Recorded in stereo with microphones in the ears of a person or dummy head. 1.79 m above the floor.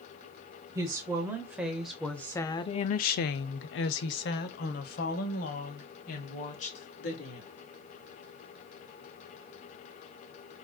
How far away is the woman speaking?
About 1.2 m.